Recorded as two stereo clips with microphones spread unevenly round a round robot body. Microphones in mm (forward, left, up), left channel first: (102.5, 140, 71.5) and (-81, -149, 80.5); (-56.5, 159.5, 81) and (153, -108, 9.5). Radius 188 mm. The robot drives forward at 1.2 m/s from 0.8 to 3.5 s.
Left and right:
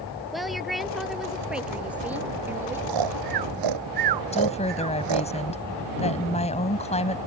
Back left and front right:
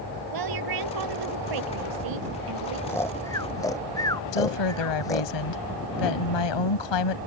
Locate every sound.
0.3 s a woman speaking: 35° right; by 2.8 s 40° right
2.9 s snoring: 150° right
4.3 s a woman speaking: 130° left